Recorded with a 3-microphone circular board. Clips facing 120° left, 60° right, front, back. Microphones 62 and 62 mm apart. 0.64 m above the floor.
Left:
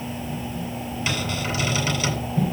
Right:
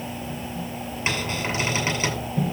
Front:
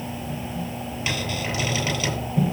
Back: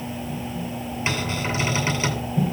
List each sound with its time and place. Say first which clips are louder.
1.1 s a cupboard door: right 1 dB, back 2 dB; 120° right, 7.5 m